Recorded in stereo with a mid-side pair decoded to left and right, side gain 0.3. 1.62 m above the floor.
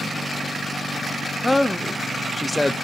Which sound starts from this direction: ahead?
A man speaking, at 1.4 s.